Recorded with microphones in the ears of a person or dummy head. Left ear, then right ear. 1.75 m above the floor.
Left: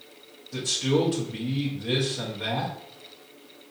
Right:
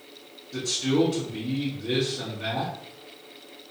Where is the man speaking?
25° left (ahead or behind), 1.0 m.